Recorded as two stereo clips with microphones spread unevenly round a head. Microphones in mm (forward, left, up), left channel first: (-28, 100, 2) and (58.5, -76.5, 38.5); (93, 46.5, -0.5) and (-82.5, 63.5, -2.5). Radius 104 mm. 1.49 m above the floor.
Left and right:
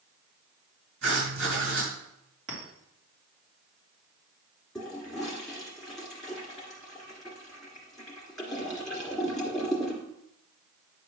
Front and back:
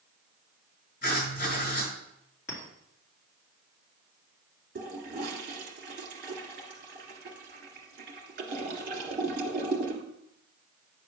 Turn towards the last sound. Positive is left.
turn(degrees=-150)